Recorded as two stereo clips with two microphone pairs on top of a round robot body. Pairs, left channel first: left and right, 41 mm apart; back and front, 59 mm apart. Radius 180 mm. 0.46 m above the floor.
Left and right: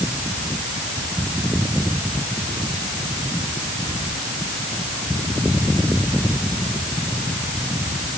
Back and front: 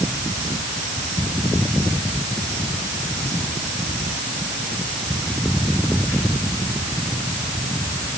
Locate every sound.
Only background noise.